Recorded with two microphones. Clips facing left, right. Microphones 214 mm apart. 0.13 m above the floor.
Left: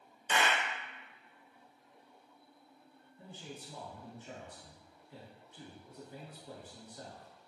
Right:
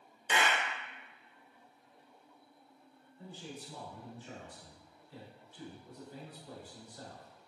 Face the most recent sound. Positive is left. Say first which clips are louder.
# right 2 dB
turn(degrees=20)  # may be behind; listen again after turning